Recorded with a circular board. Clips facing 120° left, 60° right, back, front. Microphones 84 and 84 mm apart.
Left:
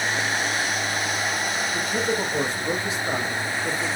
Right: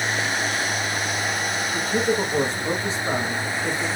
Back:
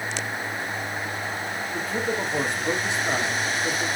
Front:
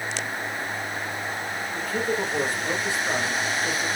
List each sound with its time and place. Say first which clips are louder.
1.7 s a man speaking: right 4 dB, front 1 dB; 115° right, 1.5 m